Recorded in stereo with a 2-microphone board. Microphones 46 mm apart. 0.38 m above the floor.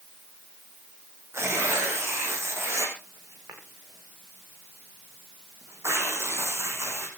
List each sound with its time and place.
1.3 s tearing paper: 80° right, 5.5 m